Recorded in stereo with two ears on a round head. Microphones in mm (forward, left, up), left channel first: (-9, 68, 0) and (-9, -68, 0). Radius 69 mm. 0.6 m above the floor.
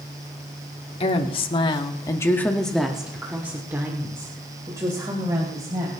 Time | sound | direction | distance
1.0 | a woman speaking | 40° left (ahead or behind) | 1.7 m